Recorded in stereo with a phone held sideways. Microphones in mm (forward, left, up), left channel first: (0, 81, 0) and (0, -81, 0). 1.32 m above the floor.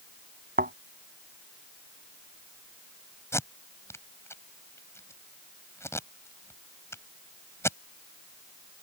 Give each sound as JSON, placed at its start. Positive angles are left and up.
{"t": 0.6, "sound": "a thud", "side_deg": -70}
{"t": 3.3, "sound": "tape being pulled", "side_deg": 15}